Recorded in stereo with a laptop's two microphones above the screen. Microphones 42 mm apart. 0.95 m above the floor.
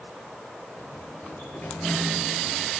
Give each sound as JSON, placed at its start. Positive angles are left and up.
{"t": 0.8, "sound": "a sliding door", "side_deg": 55, "distance_m": 8.0}